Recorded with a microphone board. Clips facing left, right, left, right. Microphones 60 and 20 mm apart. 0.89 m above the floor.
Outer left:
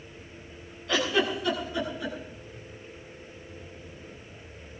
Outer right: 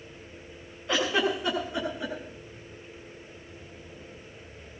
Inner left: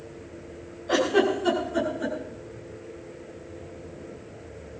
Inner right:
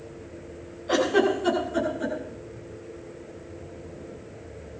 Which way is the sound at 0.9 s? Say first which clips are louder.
Even, even; 20° right (ahead or behind).